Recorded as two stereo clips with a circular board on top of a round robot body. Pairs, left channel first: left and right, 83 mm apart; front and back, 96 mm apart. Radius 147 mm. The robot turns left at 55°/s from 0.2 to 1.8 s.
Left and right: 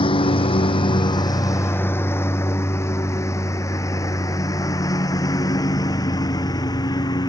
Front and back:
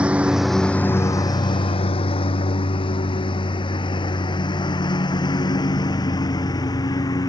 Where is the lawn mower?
100° left; by 7.3 s 50° left.